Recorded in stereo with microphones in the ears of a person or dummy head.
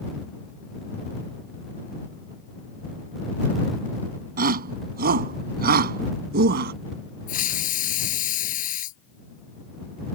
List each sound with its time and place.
4.4 s a shout: 40° right (ahead or behind); by 6.7 s 45° right (ahead or behind)
7.3 s a hiss: 50° left (ahead or behind)